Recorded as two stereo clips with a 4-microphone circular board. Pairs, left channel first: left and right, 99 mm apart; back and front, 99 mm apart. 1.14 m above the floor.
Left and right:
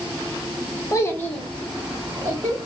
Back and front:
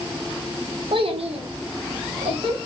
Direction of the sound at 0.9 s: 35° left.